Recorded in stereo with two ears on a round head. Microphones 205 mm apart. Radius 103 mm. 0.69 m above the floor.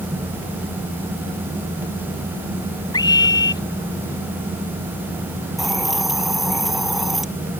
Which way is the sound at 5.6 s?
Centre (ahead or behind).